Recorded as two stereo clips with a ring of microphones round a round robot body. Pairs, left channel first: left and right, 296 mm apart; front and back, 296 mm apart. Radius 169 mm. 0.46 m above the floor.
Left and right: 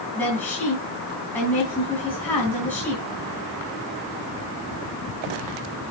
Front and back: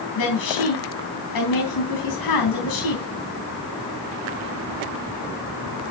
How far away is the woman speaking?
About 3.5 m.